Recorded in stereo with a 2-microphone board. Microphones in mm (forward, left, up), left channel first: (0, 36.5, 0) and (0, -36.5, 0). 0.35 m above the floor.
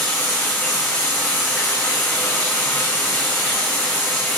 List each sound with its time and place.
0.0 s running water: 20° left (ahead or behind), 3.5 m